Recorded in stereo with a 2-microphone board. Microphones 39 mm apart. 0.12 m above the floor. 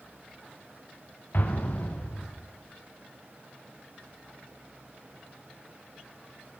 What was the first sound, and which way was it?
An explosion, 60° left (ahead or behind).